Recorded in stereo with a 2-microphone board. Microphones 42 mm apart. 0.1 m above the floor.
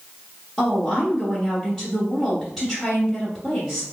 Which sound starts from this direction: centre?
A woman speaking, at 0.6 s.